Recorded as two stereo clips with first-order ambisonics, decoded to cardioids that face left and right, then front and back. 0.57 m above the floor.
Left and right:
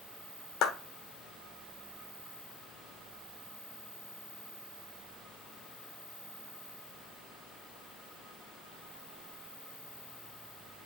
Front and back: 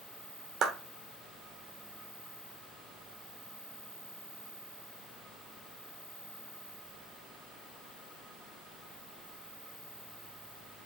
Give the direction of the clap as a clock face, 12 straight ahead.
8 o'clock.